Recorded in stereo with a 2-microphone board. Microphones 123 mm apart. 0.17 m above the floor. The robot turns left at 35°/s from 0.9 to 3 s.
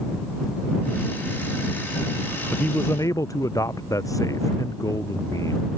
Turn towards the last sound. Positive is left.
turn(degrees=25)  # may be behind; listen again after turning